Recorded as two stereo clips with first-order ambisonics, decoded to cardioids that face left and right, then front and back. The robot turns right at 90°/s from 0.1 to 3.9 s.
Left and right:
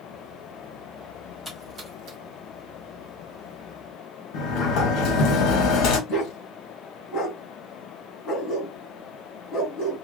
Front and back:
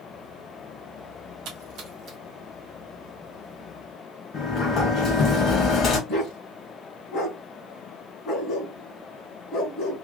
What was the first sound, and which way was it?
A splash, straight behind.